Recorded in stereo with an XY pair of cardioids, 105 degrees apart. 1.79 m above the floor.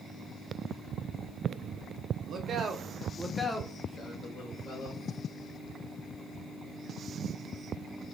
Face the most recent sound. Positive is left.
turn(degrees=65)